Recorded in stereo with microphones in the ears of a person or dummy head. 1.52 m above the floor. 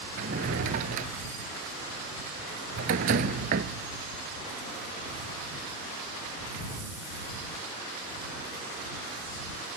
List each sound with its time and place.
0.2 s a drawer: 45° right (ahead or behind)